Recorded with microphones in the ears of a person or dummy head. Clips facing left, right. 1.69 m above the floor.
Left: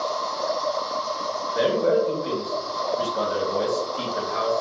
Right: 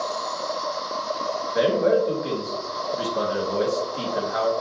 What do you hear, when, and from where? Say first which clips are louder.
0.0 s an insect: left 2 dB; 30° right (ahead or behind), 1.1 m
1.6 s a man speaking: right 1 dB; 70° right (ahead or behind), 1.2 m